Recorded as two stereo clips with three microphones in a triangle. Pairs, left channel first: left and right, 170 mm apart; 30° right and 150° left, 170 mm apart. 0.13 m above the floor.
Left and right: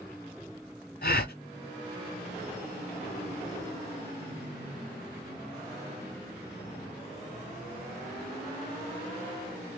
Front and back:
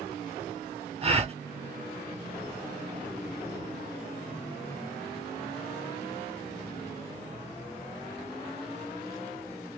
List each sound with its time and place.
1.0 s a gasp: 100° left, 0.7 m